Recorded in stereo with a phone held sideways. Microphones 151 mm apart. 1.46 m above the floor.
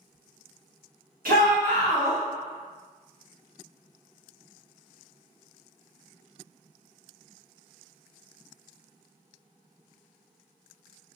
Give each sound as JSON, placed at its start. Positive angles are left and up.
{"t": 1.2, "sound": "a shout", "side_deg": -75, "distance_m": 1.9}